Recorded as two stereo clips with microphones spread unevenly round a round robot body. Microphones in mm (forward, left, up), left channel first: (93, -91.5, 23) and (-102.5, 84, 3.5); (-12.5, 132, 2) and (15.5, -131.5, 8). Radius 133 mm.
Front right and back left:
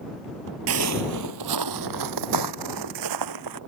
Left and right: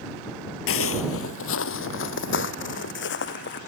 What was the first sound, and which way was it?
Footsteps, 120° left.